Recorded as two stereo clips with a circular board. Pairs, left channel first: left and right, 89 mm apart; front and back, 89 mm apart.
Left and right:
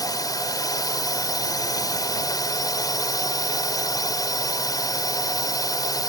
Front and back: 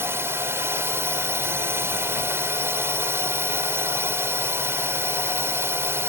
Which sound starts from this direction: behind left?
A drone, at 0.0 s.